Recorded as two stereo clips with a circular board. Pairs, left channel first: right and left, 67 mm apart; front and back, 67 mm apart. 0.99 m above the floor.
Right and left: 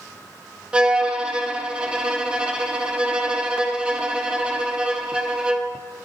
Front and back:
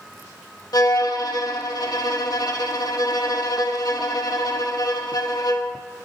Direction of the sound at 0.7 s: 15° left.